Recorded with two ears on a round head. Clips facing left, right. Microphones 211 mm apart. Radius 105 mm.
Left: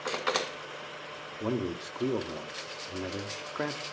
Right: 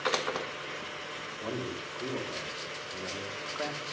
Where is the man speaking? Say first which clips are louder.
Left 5 dB; 50° left (ahead or behind), 2.5 m.